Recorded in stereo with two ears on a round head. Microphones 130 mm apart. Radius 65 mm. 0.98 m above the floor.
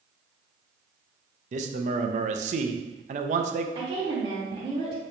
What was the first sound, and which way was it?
A man speaking, 55° right (ahead or behind).